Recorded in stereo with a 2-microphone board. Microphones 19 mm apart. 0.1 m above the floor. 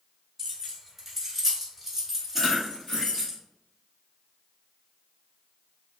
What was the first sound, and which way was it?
Keys jangling, 5° right (ahead or behind).